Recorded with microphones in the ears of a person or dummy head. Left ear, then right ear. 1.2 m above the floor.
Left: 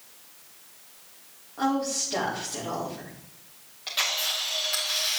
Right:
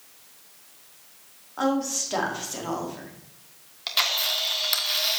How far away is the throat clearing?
No throat clearing in this recording.